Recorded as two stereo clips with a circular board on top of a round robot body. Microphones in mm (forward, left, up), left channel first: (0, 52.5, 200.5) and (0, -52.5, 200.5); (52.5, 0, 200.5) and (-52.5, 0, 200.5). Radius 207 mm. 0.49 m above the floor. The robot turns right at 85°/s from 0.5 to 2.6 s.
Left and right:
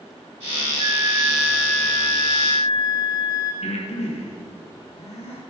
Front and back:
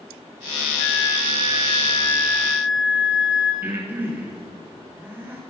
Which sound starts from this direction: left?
Breathing, at 3.6 s.